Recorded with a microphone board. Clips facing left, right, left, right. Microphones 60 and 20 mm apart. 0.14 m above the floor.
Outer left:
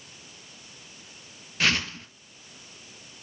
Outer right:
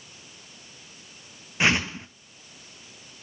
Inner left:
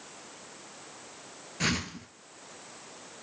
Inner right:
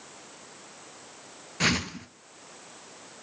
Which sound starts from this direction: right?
A whoosh, at 1.6 s.